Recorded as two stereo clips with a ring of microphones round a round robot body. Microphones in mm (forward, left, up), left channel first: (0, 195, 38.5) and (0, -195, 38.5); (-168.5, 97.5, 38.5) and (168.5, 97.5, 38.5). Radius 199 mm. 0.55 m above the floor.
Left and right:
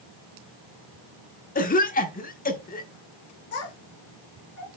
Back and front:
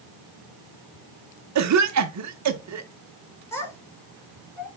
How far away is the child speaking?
About 5.5 m.